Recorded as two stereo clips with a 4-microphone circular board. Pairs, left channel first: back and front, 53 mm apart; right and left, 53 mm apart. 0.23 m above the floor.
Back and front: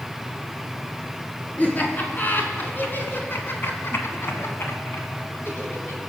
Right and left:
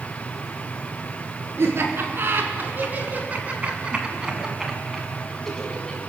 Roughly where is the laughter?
Behind left.